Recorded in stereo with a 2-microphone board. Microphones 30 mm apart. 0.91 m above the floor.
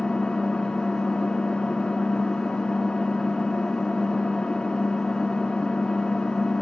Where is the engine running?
30° left (ahead or behind), 1.4 m.